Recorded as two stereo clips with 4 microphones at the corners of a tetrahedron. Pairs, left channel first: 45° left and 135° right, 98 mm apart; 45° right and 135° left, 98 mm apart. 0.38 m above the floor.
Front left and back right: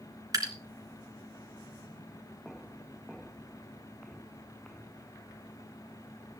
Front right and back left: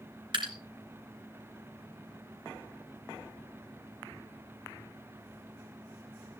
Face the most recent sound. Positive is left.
turn(degrees=170)